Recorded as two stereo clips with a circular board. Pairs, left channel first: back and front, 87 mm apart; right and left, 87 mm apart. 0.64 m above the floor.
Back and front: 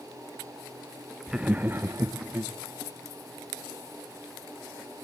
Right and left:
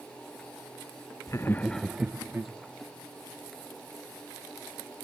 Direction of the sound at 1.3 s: 75° right.